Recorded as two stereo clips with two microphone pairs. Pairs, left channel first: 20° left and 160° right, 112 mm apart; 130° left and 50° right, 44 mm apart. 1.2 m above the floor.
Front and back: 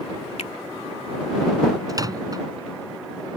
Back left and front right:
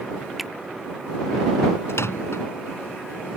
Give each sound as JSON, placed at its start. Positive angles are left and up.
{"t": 0.4, "sound": "a finger snap", "azimuth_deg": 40}
{"t": 1.9, "sound": "a microwave", "azimuth_deg": 145}